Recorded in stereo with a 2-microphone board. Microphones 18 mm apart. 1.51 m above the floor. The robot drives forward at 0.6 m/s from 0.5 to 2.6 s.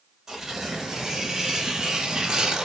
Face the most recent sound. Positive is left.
turn(degrees=-35)  # may be behind; listen again after turning